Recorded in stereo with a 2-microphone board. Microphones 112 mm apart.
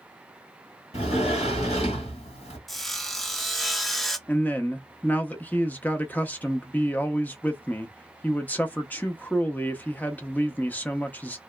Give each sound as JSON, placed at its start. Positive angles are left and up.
{"t": 0.9, "sound": "a sliding door", "side_deg": 80, "distance_m": 1.6}
{"t": 2.7, "sound": "sawing", "side_deg": 0, "distance_m": 0.5}
{"t": 4.3, "sound": "a man speaking", "side_deg": 15, "distance_m": 0.5}